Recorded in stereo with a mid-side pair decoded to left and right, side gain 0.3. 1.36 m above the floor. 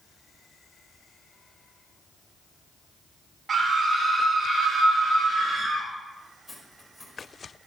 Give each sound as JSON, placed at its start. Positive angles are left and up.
{"t": 3.5, "sound": "a scream", "azimuth_deg": -65, "distance_m": 4.0}
{"t": 6.5, "sound": "cutlery clinking", "azimuth_deg": -5, "distance_m": 4.5}